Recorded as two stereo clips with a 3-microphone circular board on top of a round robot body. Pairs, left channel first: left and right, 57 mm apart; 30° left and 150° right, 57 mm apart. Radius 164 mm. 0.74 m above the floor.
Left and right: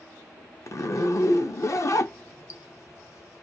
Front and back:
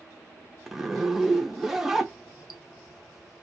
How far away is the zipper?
About 0.5 m.